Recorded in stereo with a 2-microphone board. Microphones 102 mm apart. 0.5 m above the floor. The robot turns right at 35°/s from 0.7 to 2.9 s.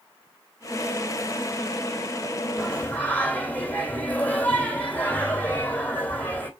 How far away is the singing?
About 2 m.